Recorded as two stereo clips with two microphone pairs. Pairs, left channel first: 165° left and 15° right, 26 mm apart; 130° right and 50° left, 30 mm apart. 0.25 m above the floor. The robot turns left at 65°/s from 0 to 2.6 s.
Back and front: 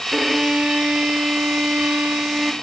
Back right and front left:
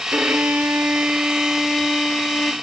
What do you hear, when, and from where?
0.1 s a violin: 75° left, 0.8 m; by 2.5 s 85° right, 0.8 m